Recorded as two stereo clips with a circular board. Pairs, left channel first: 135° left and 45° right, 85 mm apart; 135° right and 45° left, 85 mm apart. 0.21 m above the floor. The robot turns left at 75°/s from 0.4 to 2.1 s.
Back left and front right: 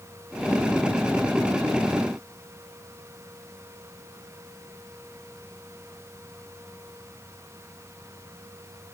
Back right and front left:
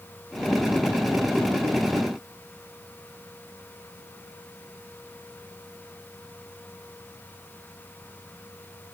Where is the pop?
I don't hear a pop.